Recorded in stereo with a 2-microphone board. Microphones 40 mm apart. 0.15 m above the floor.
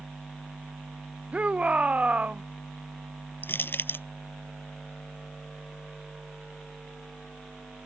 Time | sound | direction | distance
1.3 | a shout | 30° right (ahead or behind) | ?
3.4 | crushing | 60° left (ahead or behind) | ?